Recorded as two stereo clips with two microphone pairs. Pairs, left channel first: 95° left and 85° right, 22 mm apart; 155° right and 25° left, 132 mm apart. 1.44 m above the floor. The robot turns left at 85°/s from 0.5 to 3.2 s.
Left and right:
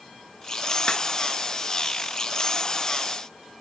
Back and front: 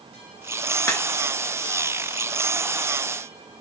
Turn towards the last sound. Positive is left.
turn(degrees=-60)